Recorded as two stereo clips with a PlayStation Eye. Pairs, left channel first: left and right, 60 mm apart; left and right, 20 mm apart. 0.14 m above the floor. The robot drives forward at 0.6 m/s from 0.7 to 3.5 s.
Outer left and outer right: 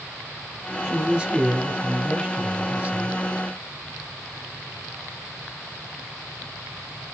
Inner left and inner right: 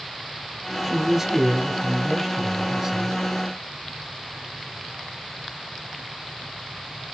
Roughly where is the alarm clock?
No alarm clock in this recording.